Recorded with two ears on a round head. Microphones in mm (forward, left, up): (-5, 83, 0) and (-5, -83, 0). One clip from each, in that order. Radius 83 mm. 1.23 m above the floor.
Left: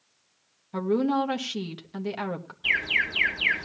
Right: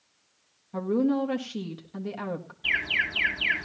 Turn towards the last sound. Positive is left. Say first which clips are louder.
# left 2 dB
turn(degrees=10)  # may be behind; listen again after turning